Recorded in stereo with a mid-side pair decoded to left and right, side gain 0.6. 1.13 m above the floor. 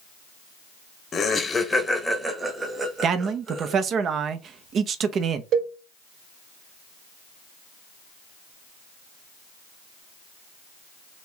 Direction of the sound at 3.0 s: 45° right.